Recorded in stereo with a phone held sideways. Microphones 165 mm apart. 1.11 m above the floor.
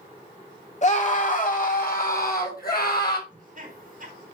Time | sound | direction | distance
0.8 | a scream | 45° left (ahead or behind) | 2.5 m
3.3 | laughter | 50° right (ahead or behind) | 4.5 m